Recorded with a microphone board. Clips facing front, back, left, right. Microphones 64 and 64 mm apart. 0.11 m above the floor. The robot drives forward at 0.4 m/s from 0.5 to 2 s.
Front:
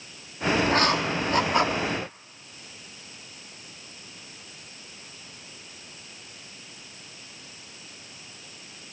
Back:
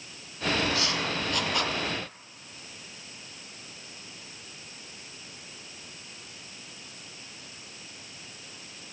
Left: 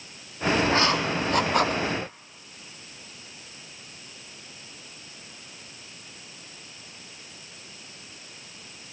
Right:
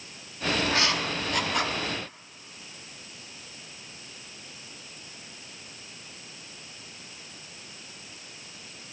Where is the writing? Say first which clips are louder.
Front 6 dB, left 4 dB; 35° left, 0.8 m; by 1.8 s 70° left, 0.6 m.